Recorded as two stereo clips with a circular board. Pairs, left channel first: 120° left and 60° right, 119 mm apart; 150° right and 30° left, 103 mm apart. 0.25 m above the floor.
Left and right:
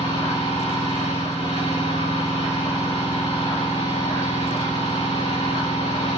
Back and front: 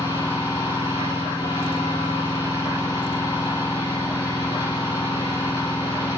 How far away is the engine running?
About 7 m.